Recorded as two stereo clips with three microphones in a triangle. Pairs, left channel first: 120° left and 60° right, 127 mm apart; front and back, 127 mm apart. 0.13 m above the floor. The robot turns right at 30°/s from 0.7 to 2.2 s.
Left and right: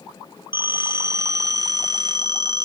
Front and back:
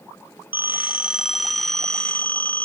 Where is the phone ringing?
115° right, 1.0 m; by 2.7 s 70° right, 1.0 m.